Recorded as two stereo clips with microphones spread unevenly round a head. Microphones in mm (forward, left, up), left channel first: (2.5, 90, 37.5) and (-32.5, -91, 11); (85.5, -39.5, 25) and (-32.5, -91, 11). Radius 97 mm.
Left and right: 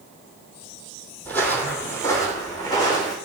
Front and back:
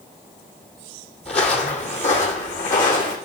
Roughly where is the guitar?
I don't hear a guitar.